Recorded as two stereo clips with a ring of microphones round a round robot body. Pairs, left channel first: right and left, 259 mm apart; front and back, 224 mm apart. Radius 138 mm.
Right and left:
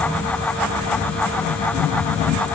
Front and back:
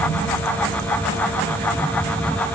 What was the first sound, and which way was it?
Only background noise.